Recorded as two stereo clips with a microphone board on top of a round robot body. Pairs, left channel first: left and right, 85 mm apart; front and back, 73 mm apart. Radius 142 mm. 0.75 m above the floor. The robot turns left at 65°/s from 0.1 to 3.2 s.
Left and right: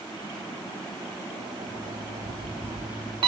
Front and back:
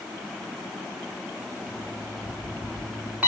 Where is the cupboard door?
I don't hear a cupboard door.